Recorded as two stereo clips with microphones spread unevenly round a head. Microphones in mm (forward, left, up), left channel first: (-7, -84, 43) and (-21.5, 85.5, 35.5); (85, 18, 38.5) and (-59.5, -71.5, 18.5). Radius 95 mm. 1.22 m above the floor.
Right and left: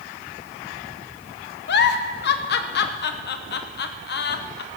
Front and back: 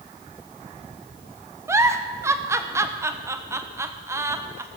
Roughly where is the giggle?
Right.